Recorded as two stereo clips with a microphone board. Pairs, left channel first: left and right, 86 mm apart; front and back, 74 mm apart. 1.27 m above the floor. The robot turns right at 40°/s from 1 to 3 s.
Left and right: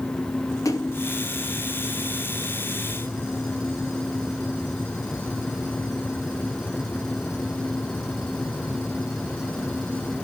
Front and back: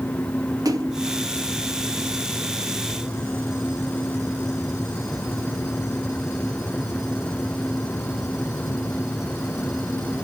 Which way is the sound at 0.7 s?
145° left.